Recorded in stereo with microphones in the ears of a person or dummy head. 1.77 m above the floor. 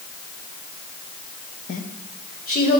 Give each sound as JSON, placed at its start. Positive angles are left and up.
{"t": 1.7, "sound": "a woman speaking", "side_deg": 35, "distance_m": 0.5}